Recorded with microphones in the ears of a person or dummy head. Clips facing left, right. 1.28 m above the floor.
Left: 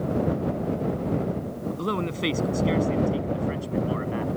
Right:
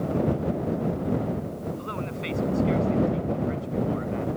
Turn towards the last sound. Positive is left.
turn(degrees=70)  # may be behind; listen again after turning